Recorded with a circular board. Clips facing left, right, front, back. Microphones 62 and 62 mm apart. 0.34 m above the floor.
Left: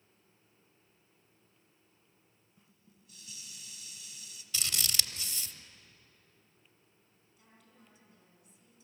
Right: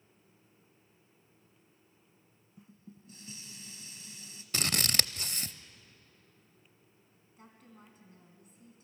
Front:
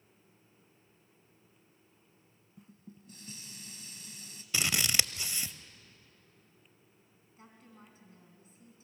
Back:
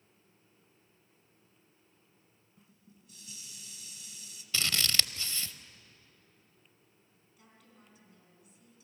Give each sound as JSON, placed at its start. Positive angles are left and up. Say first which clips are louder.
{"t": 2.6, "sound": "dishes clattering", "louder": "right 12 dB, front 8 dB", "azimuth_deg": -40, "distance_m": 1.6}
{"t": 4.5, "sound": "scissors", "louder": "right 5 dB, even", "azimuth_deg": -70, "distance_m": 0.6}
{"t": 7.4, "sound": "a woman speaking", "louder": "right 7 dB, front 5 dB", "azimuth_deg": -55, "distance_m": 3.5}